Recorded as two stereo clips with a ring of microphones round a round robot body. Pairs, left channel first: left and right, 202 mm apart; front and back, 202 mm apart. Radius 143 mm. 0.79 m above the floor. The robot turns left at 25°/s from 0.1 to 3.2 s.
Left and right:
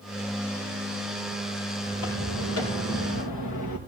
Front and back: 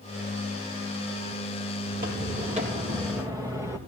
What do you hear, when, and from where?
1.9 s footsteps: 145° left, 5.5 m; by 3.8 s 105° left, 4 m